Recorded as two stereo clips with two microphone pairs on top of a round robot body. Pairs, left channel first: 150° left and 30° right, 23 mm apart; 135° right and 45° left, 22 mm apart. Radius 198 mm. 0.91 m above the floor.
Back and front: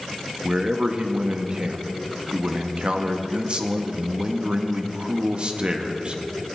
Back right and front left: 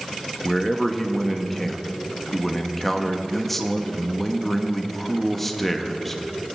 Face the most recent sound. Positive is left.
turn(degrees=-45)